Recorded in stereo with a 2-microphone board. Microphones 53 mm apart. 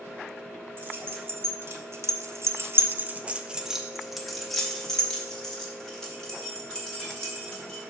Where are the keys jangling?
45° right (ahead or behind), 1.2 m; by 7.8 s 15° left (ahead or behind), 3 m.